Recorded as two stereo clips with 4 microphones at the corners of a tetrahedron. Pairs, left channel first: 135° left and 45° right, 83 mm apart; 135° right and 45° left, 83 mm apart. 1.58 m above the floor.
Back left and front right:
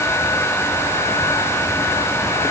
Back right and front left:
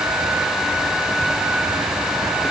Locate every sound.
Only background noise.